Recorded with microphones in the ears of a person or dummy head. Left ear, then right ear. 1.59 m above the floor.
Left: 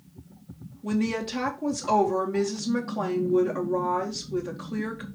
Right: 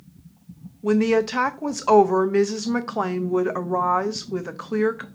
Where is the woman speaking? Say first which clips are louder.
Right 10 dB; 35° right (ahead or behind), 0.6 m.